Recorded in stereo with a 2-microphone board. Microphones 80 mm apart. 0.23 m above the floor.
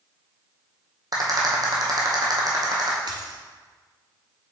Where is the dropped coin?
65° right (ahead or behind), 1.3 m.